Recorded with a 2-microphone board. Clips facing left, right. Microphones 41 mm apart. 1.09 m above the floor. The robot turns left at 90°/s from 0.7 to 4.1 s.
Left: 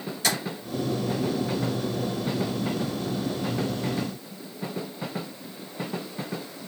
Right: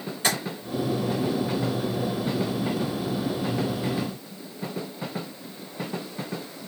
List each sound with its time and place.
0.2 s tapping: 30° right (ahead or behind), 2.5 m